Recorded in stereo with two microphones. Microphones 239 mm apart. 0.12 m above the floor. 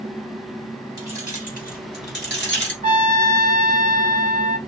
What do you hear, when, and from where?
1.0 s keys jangling: 25° left (ahead or behind), 1.9 m; by 2.7 s 50° left (ahead or behind), 1.8 m
2.8 s a trumpet: 35° right (ahead or behind), 0.8 m